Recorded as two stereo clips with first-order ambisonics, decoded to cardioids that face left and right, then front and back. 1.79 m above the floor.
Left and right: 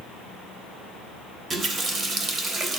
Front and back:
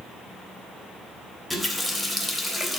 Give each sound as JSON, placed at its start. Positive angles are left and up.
{"t": 1.5, "sound": "a running tap", "azimuth_deg": -85, "distance_m": 0.8}